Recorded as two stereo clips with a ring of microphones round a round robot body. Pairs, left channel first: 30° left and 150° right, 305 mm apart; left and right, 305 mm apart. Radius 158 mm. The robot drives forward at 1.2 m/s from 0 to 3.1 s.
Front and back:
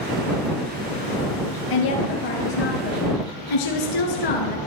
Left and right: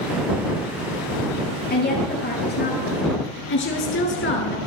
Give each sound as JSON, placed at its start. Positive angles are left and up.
{"t": 1.7, "sound": "a woman speaking", "azimuth_deg": 30, "distance_m": 8.0}